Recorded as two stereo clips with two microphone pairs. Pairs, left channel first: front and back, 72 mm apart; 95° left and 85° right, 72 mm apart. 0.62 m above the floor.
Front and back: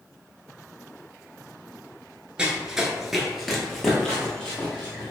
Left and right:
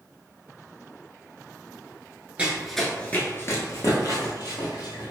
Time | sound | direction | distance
2.4 | running footsteps | 115° right | 0.6 m